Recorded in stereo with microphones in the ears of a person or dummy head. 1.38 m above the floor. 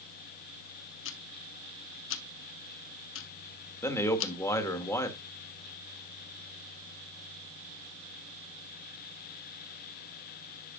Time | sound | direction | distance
1.1 | ticking | 70° left (ahead or behind) | 1.2 m
3.8 | a man speaking | 15° left (ahead or behind) | 1.6 m